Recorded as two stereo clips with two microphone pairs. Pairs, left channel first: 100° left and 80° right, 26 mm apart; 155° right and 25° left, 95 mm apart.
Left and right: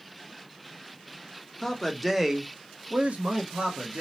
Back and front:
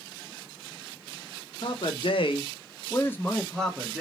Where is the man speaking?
Straight behind, 0.8 m; by 4.0 s 60° right, 1.1 m.